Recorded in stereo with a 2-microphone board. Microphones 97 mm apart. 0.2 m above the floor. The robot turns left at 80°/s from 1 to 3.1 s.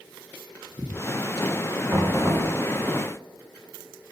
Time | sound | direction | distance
1.9 | knocking | 15° right | 1.1 m